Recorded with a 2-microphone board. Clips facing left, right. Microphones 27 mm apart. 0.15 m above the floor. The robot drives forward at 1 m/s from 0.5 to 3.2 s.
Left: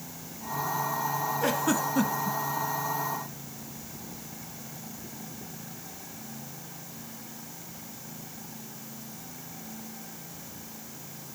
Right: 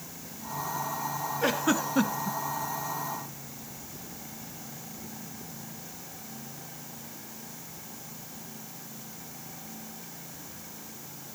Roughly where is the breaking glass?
I don't hear breaking glass.